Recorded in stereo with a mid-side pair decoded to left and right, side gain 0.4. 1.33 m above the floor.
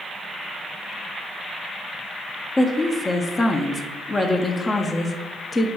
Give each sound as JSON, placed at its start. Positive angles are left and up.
{"t": 2.6, "sound": "a woman speaking", "azimuth_deg": 25, "distance_m": 0.5}